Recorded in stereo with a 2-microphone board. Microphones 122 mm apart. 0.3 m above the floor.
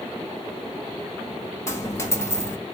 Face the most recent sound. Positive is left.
turn(degrees=20)  # may be behind; listen again after turning